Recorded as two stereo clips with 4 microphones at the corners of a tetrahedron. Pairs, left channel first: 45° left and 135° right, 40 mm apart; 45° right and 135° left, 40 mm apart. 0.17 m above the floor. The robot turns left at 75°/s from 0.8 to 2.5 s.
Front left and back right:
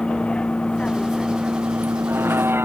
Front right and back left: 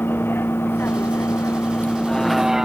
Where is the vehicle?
20° right; by 2.7 s 145° right.